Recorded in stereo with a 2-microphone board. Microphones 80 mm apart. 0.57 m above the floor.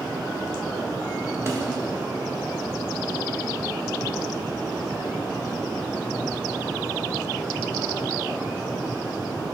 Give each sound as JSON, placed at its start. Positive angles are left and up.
{"t": 1.5, "sound": "a snare drum", "side_deg": -35, "distance_m": 1.3}